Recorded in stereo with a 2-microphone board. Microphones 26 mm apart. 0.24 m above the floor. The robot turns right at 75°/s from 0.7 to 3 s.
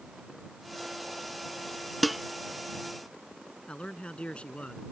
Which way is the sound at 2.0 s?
Centre (ahead or behind).